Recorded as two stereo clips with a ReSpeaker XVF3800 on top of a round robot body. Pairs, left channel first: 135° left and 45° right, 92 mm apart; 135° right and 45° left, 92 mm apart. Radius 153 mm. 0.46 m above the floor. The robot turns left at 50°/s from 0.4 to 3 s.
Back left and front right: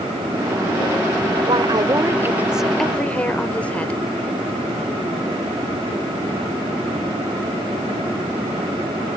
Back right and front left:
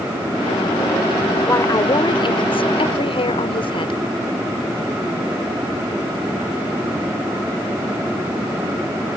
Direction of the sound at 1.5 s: 70° right.